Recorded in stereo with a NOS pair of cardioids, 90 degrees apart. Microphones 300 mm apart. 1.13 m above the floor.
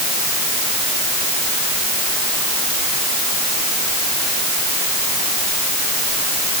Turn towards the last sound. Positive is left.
No sound to turn to.